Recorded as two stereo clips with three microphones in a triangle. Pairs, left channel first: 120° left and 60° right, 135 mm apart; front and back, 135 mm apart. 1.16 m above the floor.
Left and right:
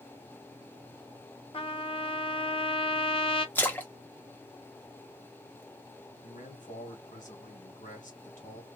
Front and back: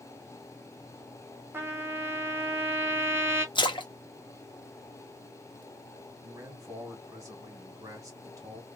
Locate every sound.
1.5 s a trumpet: 115° left, 0.8 m
3.5 s a splash: 45° left, 0.7 m
6.2 s a man speaking: 115° left, 1.5 m